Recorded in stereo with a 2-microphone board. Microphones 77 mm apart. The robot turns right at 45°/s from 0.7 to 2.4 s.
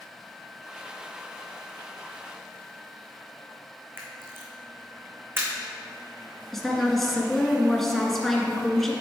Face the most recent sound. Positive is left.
turn(degrees=5)  # may be behind; listen again after turning